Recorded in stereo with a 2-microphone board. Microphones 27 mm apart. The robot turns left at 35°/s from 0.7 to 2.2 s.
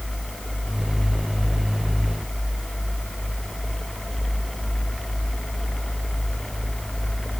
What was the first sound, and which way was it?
Only background noise.